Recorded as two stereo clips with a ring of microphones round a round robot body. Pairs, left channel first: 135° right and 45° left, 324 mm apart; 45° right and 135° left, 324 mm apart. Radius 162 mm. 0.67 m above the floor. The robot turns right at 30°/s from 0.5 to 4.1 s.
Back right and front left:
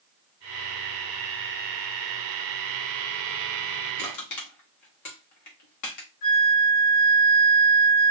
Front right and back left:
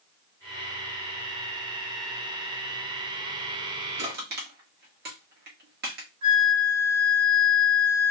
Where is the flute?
175° left, 1.8 m.